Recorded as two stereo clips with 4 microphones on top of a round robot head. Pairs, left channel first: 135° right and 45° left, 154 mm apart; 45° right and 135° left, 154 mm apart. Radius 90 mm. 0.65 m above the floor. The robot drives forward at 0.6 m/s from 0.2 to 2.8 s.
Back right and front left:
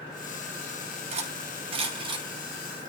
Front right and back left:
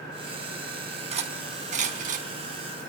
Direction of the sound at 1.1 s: 90° left.